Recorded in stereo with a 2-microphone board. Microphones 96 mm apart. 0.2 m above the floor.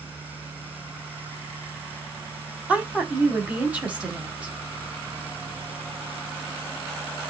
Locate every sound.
2.7 s a woman speaking: 15° right (ahead or behind), 1.7 m